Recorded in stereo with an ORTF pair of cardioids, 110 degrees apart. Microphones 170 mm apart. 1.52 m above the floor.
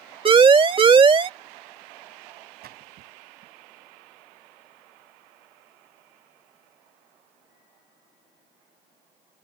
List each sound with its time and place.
0.2 s a siren: 30° right
2.6 s a splash: 65° right